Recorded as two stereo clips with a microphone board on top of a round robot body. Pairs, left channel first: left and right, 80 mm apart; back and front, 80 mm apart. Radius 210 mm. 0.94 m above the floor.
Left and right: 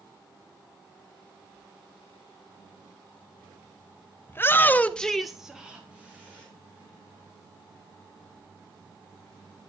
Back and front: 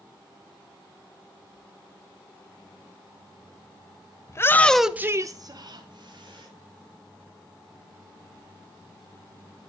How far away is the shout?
About 0.9 m.